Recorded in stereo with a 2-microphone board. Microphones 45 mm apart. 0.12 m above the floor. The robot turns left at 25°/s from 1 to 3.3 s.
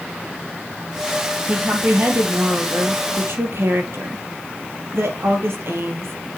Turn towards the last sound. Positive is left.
turn(degrees=-85)